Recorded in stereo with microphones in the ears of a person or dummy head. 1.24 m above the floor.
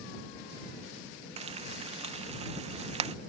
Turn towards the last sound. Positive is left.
turn(degrees=-35)  # may be behind; listen again after turning